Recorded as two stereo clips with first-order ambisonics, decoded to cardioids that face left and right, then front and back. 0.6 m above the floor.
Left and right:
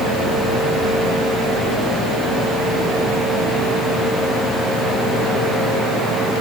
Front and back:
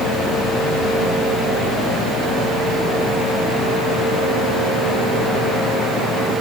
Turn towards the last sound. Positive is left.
No sound to turn to.